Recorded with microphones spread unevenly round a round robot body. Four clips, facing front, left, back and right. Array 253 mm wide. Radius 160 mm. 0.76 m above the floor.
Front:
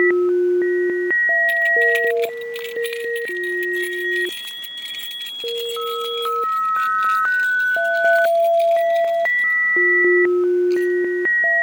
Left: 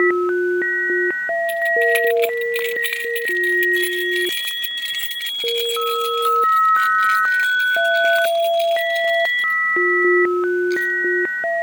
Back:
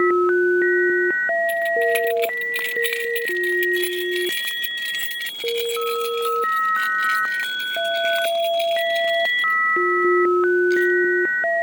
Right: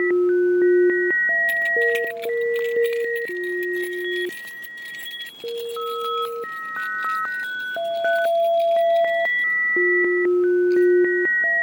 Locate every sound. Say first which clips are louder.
1.5 s keys jangling: left 6 dB, front 1 dB; 120° right; by 10.9 s 145° left